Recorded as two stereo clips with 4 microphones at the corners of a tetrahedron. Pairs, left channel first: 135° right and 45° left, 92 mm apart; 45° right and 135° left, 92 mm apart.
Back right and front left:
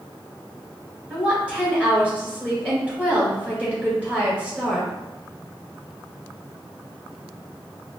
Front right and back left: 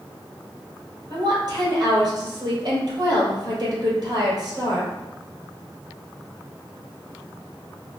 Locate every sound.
1.1 s a woman speaking: 115° left, 1.9 m